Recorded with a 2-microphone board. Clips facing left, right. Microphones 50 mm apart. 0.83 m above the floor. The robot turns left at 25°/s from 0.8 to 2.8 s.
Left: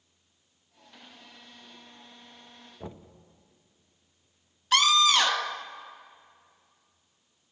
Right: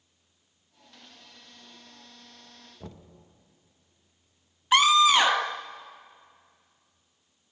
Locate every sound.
2.8 s knocking: 20° left (ahead or behind), 0.8 m
4.7 s a scream: 15° right (ahead or behind), 0.7 m